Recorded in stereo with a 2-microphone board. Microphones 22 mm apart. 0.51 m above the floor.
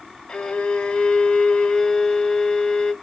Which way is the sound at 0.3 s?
60° left (ahead or behind).